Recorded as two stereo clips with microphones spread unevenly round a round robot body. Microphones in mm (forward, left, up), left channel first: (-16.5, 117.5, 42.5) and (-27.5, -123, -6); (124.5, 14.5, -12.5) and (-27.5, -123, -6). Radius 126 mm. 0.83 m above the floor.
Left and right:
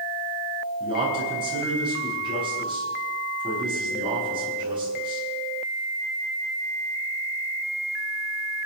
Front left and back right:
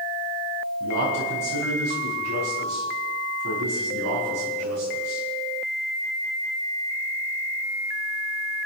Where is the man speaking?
165° right, 7 m.